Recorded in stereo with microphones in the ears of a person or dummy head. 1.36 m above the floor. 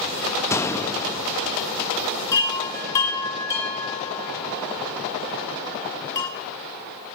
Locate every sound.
0.5 s a gunshot: 15° left (ahead or behind), 0.6 m
2.3 s a chime: 20° left (ahead or behind), 1.4 m